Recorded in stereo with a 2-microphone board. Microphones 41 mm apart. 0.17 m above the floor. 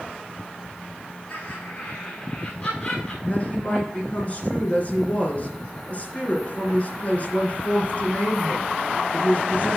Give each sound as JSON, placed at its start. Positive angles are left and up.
{"t": 1.3, "sound": "laughter", "side_deg": 55, "distance_m": 4.0}
{"t": 3.2, "sound": "a woman speaking", "side_deg": 35, "distance_m": 2.5}